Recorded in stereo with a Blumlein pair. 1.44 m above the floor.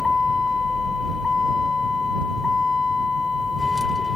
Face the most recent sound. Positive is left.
turn(degrees=10)